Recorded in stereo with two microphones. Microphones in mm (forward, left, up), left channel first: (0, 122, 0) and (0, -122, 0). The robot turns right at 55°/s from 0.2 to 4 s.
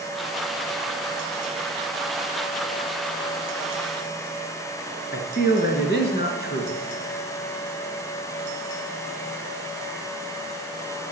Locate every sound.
5.1 s a man speaking: 40° left (ahead or behind), 1.6 m